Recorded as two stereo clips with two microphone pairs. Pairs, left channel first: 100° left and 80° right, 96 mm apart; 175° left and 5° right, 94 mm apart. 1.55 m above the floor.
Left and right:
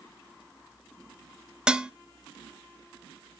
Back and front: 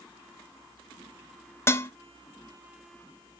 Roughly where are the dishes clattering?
Behind right.